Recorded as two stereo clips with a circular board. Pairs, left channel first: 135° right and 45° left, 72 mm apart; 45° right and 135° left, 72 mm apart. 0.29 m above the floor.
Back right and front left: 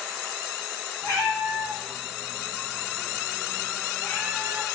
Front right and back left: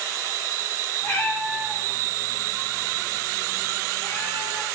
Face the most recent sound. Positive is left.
turn(degrees=-5)